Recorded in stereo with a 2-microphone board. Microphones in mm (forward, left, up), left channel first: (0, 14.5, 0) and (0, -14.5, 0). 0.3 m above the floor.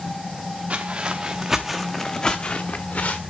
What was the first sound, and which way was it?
Footsteps, 50° right (ahead or behind).